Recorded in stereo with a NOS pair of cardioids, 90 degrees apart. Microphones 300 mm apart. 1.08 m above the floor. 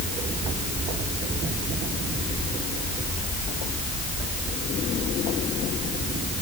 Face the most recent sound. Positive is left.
No sound to turn to.